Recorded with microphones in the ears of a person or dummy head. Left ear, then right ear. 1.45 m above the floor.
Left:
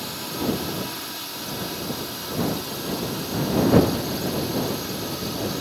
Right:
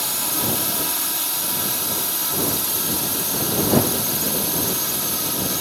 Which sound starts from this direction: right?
A drone, at 0.0 s.